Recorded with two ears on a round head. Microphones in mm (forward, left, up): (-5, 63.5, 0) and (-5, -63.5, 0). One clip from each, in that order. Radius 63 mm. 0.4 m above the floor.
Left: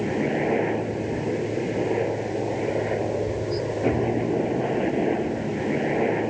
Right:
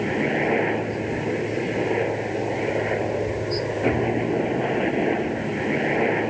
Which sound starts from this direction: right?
A helicopter, at 0.0 s.